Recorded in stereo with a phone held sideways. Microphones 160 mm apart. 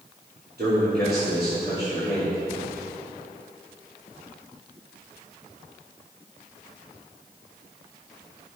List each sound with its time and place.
0.6 s a man speaking: 75° right (ahead or behind), 3.5 m